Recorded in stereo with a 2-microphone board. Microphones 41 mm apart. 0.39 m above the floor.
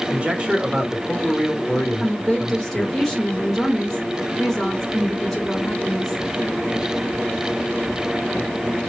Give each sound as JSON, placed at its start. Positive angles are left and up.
{"t": 0.1, "sound": "a man speaking", "side_deg": -30, "distance_m": 1.2}
{"t": 2.0, "sound": "a woman speaking", "side_deg": 10, "distance_m": 0.9}